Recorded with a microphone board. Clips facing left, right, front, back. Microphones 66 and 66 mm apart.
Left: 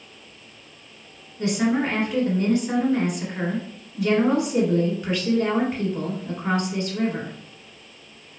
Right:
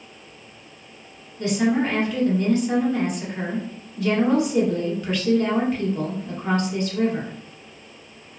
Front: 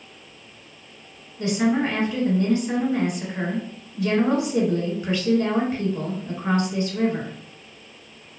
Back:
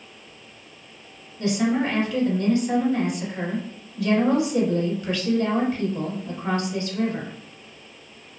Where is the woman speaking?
40° left, 1.4 m.